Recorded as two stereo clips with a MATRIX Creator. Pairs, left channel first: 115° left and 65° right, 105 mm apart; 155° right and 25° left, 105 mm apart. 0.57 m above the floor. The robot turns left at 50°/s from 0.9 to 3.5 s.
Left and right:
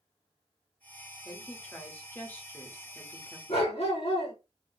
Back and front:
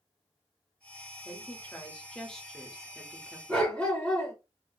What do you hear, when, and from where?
1.2 s a woman speaking: straight behind, 0.9 m; by 3.4 s 75° left, 0.9 m
3.5 s a dog barking: 125° left, 2.0 m